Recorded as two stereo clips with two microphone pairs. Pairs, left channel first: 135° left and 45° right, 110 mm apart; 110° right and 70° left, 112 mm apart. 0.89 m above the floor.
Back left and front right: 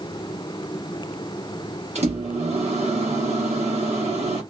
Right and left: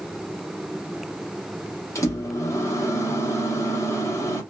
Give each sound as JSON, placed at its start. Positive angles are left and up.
{"t": 1.9, "sound": "a microwave", "azimuth_deg": -45, "distance_m": 1.0}